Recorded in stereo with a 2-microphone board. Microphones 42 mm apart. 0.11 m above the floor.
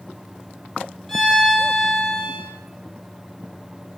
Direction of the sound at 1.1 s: 5° left (ahead or behind).